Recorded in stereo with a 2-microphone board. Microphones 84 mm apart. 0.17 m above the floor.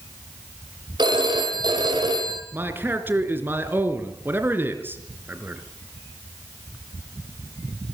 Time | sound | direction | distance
1.0 | a phone ringing | 65° right (ahead or behind) | 4 m
2.5 | a man speaking | 25° right (ahead or behind) | 2.5 m